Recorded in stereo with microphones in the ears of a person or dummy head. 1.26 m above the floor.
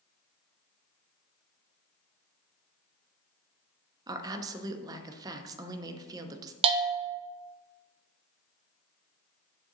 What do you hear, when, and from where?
4.1 s a woman speaking: 20° right (ahead or behind), 0.7 m
6.6 s a bell: 25° right (ahead or behind), 0.5 m